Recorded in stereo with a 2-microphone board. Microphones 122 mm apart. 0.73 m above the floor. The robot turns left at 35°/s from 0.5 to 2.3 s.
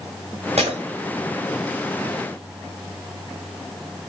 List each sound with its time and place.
0.6 s breaking glass: 70° right (ahead or behind), 1.9 m; by 0.8 s 80° right, 1.9 m